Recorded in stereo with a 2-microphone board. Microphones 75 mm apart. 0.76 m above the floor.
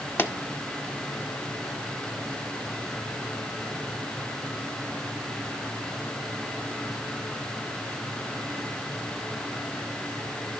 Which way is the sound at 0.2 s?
35° left (ahead or behind).